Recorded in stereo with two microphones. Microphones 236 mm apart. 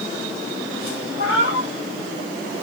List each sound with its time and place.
1.2 s a cat meowing: 55° left (ahead or behind), 5 m